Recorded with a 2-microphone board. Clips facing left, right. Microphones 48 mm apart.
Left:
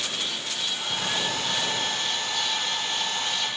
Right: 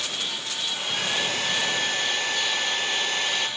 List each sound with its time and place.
0.7 s a hair dryer: 75° right (ahead or behind), 7.5 m